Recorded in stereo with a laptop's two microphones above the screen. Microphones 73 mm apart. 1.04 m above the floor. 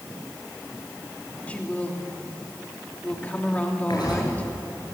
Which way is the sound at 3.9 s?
80° left.